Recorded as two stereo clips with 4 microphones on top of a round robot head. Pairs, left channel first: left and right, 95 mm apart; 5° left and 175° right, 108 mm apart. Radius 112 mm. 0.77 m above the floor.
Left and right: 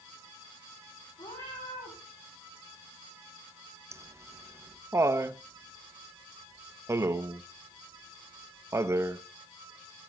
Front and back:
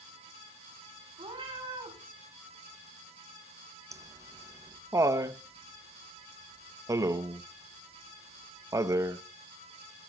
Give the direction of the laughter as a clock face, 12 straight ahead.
4 o'clock.